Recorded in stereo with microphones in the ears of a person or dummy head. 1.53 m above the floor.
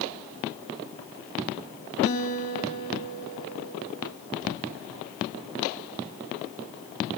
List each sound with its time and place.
2.0 s a guitar: 65° left (ahead or behind), 3 m